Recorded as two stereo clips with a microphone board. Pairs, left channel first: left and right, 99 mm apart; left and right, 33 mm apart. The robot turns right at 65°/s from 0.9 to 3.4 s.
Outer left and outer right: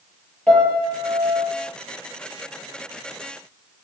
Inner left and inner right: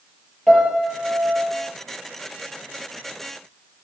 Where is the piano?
170° left, 6.5 m; by 1.5 s 155° right, 6.5 m.